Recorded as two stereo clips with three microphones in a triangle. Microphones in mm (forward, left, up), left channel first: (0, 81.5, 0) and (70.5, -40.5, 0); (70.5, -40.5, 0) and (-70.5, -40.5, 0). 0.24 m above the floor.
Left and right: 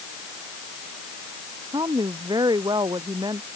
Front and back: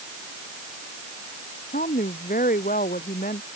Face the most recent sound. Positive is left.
turn(degrees=0)